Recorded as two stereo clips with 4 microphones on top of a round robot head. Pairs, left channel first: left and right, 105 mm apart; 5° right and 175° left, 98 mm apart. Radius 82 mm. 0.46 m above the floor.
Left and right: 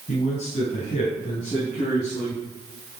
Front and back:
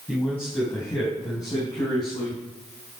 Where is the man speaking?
80° left, 3.5 m; by 2.4 s 35° left, 4.5 m.